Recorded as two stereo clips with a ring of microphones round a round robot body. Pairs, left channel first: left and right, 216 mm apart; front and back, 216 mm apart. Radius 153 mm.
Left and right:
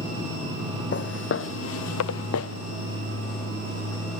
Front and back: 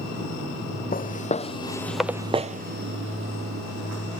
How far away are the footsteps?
About 1.2 m.